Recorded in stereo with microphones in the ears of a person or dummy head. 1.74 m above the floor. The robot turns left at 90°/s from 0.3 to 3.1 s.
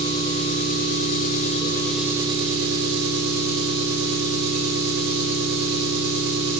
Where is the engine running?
155° left, 0.7 m; by 6.6 s 100° right, 0.7 m.